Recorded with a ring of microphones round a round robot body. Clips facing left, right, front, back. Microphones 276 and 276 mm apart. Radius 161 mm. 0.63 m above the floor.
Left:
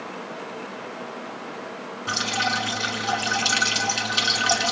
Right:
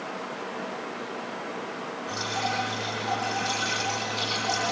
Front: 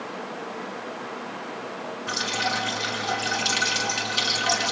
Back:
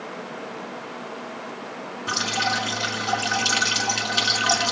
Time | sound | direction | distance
2.1 | dripping | 110° left | 6 m